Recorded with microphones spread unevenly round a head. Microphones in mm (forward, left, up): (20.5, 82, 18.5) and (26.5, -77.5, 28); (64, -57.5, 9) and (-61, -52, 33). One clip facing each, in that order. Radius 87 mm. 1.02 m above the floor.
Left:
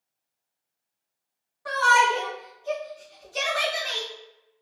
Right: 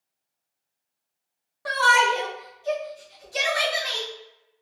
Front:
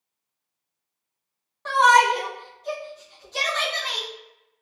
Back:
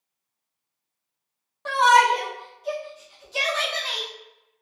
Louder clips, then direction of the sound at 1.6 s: Even, even; 100° right.